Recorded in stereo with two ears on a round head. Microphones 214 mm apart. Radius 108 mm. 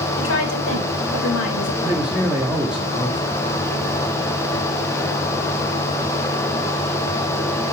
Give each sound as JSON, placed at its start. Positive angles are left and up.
{"t": 0.2, "sound": "a woman speaking", "side_deg": 55, "distance_m": 3.5}
{"t": 1.8, "sound": "a man speaking", "side_deg": -5, "distance_m": 1.7}